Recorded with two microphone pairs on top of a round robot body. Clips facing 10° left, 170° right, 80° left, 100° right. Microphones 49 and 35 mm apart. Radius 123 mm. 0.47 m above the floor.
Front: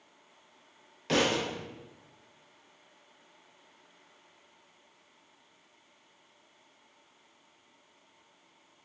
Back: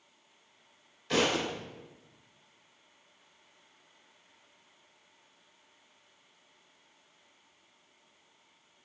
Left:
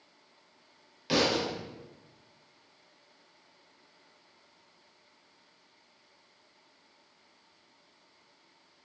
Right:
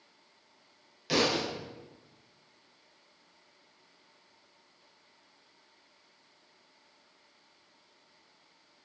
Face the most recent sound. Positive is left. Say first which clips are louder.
# front 1 dB, left 1 dB
turn(degrees=5)